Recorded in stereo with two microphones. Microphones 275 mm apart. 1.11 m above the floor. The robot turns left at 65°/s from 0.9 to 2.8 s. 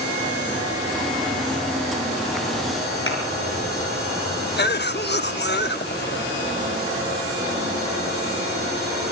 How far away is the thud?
About 6.5 m.